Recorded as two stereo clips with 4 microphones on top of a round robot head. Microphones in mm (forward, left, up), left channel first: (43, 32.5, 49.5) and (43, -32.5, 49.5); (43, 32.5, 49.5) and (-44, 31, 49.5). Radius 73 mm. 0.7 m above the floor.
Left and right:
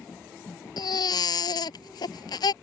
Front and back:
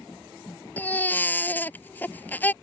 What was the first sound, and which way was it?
A baby crying, 70° left.